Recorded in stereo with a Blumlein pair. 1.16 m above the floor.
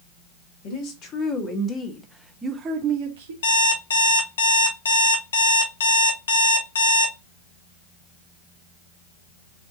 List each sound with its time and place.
0.6 s a woman speaking: 40° left, 1.3 m; by 3.3 s 65° right, 0.7 m
3.4 s an alarm clock: 65° left, 0.7 m